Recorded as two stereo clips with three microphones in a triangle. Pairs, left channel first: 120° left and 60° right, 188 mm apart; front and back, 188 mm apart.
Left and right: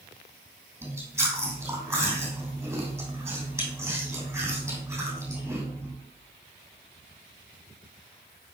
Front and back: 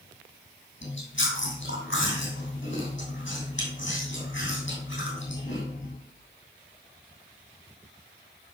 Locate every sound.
0.8 s chewing: 15° left, 3 m